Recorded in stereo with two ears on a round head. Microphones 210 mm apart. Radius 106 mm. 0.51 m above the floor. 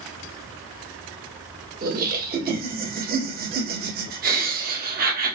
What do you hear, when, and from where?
1.8 s laughter: 40° right (ahead or behind), 1.3 m